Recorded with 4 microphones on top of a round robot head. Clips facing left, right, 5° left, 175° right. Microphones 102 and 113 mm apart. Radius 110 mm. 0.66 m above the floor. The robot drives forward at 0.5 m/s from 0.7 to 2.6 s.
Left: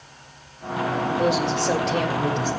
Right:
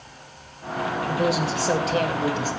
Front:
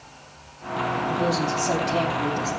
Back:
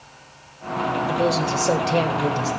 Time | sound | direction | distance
1.1 | a woman speaking | 175° right | 2 m